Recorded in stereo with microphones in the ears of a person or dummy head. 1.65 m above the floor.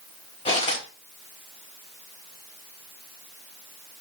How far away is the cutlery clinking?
About 1.6 m.